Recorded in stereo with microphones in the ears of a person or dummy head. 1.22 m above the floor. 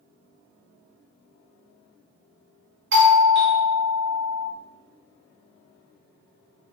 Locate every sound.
2.9 s a doorbell: 55° right (ahead or behind), 0.6 m